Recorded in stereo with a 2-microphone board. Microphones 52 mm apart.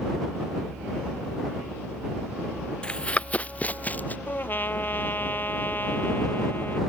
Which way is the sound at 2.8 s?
15° left (ahead or behind).